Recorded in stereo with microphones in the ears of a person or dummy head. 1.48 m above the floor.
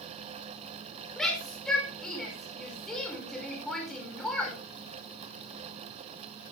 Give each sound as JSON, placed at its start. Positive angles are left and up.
{"t": 1.2, "sound": "a shout", "side_deg": 0, "distance_m": 5.5}